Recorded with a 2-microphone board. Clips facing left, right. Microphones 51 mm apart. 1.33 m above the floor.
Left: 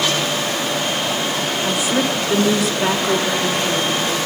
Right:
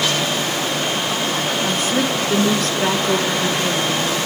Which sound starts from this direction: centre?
A woman speaking, at 1.6 s.